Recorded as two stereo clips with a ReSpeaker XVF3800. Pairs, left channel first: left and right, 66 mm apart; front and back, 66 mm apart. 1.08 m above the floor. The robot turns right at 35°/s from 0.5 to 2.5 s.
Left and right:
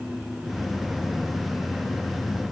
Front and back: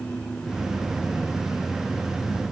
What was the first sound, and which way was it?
Only background noise.